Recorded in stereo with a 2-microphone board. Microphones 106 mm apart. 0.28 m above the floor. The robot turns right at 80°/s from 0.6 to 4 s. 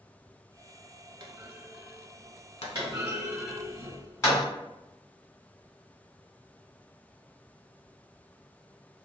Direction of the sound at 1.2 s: 45° right (ahead or behind).